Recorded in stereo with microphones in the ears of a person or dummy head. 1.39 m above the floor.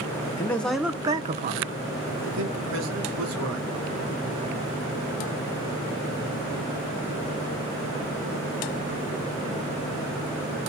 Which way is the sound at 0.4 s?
15° left (ahead or behind).